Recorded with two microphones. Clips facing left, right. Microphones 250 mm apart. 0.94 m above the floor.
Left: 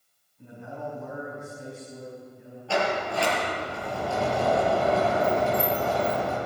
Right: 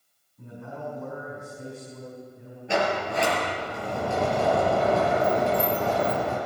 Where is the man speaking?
60° right (ahead or behind), 5.5 m.